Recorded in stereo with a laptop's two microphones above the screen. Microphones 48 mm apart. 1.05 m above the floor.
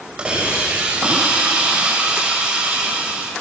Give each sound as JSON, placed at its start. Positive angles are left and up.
{"t": 0.2, "sound": "a hiss", "side_deg": -20, "distance_m": 6.0}